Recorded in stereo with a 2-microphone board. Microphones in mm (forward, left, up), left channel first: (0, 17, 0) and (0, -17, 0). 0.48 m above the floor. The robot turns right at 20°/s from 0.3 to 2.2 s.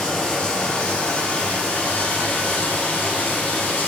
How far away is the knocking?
No knocking in this recording.